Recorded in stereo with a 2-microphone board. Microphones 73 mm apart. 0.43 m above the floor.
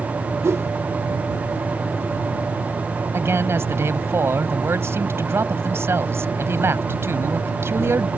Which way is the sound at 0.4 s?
40° right (ahead or behind).